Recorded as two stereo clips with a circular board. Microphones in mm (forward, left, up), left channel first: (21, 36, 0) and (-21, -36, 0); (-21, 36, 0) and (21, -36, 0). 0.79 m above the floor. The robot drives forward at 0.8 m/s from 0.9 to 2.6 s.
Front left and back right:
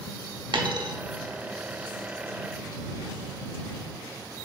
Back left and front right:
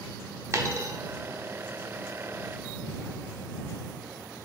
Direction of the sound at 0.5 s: 110° right.